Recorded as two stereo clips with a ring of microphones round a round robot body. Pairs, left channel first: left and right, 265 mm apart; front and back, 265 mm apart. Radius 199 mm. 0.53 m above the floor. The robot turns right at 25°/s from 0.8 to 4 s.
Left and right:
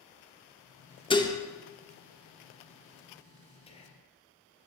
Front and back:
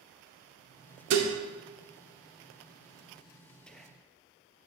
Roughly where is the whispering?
Left.